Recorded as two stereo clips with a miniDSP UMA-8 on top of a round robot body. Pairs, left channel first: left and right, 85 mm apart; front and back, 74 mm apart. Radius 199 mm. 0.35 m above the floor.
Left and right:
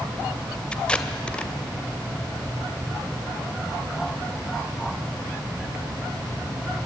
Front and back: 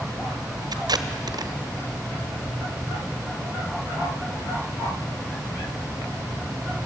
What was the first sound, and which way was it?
Tape being pulled, 165° left.